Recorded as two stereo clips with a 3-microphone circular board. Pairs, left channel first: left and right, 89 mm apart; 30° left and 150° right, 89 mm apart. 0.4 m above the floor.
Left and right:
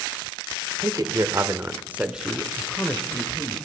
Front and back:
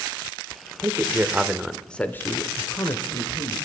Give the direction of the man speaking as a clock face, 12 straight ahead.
4 o'clock.